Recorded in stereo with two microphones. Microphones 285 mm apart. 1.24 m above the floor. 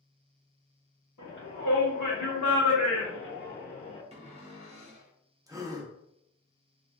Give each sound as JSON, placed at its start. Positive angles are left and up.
{"t": 1.2, "sound": "a shout", "side_deg": 70, "distance_m": 1.5}
{"t": 4.1, "sound": "a cupboard door", "side_deg": -20, "distance_m": 0.8}
{"t": 5.5, "sound": "a gasp", "side_deg": -10, "distance_m": 0.5}